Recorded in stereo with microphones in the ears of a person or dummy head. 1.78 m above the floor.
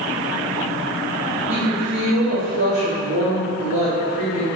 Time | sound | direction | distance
1.5 | a woman speaking | 65° right (ahead or behind) | 1.0 m